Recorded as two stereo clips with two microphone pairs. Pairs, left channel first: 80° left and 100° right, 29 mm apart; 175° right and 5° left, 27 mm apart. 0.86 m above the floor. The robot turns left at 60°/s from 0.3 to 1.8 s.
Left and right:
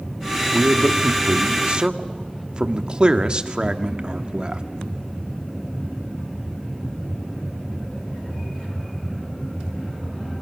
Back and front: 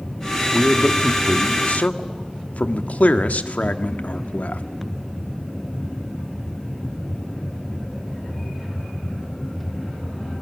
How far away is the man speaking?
About 1.4 m.